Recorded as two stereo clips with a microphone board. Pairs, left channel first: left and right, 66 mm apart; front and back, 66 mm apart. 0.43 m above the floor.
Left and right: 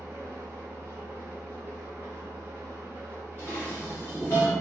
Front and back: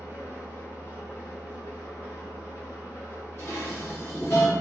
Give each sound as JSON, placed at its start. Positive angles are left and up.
{"t": 0.0, "sound": "an engine running", "azimuth_deg": -45, "distance_m": 0.9}
{"t": 3.4, "sound": "dishes clattering", "azimuth_deg": 40, "distance_m": 1.4}